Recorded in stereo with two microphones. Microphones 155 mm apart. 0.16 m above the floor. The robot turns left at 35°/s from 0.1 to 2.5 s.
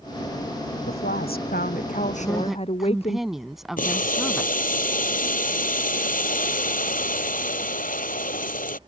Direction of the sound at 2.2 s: Centre (ahead or behind).